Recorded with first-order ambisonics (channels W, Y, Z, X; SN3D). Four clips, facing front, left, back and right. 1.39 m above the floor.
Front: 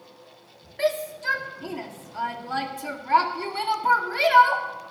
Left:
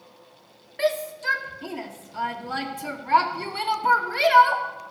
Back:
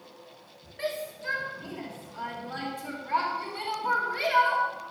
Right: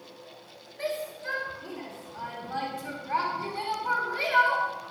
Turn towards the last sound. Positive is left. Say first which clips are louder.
# left 8 dB, front 8 dB
turn(degrees=70)